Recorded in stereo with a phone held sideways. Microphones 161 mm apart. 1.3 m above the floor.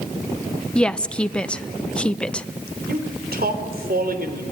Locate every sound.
0.8 s a woman speaking: 5° left (ahead or behind), 0.7 m
2.9 s a man speaking: 75° right (ahead or behind), 3.5 m